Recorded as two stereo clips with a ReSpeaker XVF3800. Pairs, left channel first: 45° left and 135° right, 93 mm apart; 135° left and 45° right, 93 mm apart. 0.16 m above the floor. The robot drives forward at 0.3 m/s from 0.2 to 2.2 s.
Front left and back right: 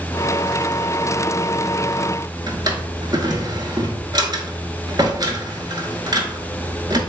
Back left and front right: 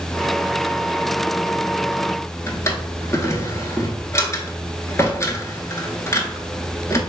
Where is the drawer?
170° right, 0.7 m.